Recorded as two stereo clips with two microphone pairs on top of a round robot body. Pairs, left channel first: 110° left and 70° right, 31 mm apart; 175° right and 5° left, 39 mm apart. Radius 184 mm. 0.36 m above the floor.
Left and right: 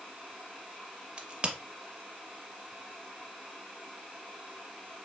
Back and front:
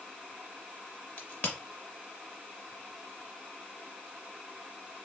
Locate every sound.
1.2 s a crack: 130° right, 0.6 m